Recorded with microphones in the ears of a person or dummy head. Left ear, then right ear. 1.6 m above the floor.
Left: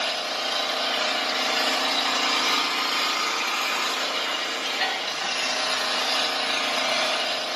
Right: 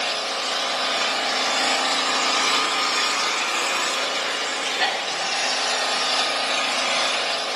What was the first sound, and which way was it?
An engine running, 5° left (ahead or behind).